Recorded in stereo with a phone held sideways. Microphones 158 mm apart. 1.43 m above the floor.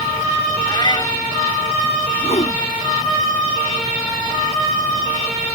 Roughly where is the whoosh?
Left.